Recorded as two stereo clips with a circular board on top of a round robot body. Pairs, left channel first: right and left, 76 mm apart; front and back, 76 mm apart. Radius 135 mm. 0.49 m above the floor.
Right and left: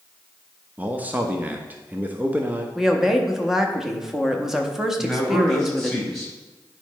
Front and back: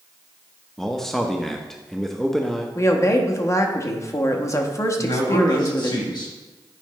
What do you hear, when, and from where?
0.8 s a man speaking: 80° left, 0.9 m
2.8 s a woman speaking: 10° left, 1.2 m
5.0 s a man speaking: straight ahead, 3 m